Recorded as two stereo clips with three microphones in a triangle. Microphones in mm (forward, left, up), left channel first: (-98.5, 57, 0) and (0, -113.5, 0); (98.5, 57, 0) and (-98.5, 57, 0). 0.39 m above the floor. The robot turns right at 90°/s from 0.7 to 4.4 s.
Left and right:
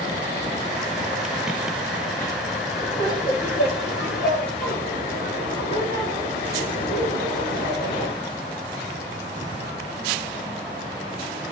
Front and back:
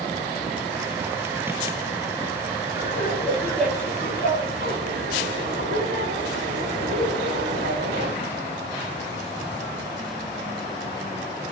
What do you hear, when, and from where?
2.8 s laughter: 10° left, 7.5 m; by 8.1 s 160° left, 7.5 m